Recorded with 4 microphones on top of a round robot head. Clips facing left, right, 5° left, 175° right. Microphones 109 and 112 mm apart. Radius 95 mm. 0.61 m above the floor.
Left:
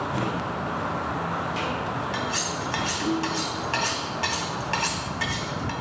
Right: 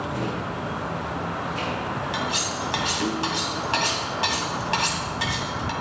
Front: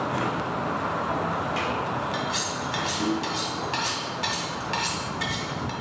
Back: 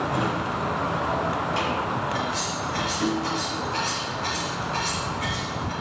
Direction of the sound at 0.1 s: 120° left.